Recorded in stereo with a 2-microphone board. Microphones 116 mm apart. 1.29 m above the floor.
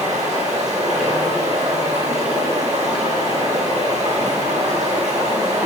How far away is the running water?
About 8.5 m.